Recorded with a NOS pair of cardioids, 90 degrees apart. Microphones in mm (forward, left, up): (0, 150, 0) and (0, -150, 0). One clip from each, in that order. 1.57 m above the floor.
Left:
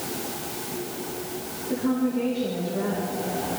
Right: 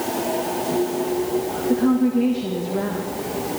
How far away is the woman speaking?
About 2.5 m.